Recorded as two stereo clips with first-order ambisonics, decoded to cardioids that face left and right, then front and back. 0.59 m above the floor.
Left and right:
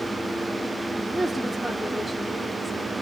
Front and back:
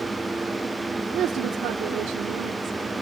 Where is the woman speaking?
165° right, 0.9 m; by 3.0 s 165° left, 3 m.